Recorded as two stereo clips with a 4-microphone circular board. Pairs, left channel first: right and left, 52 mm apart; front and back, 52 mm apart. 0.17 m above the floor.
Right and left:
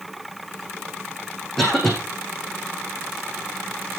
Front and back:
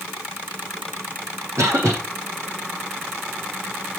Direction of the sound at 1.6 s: Straight behind.